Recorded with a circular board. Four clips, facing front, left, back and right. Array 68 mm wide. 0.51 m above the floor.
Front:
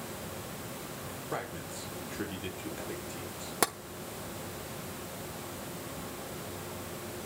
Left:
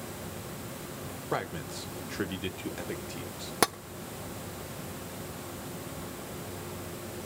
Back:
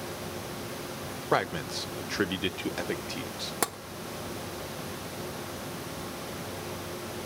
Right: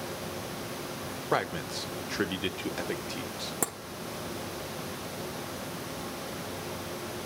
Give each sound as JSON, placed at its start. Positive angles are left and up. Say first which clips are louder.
{"t": 1.3, "sound": "a man speaking", "louder": "right 4 dB, back 11 dB", "azimuth_deg": -155, "distance_m": 0.9}
{"t": 3.6, "sound": "tapping", "louder": "left 9 dB, front 1 dB", "azimuth_deg": 80, "distance_m": 0.9}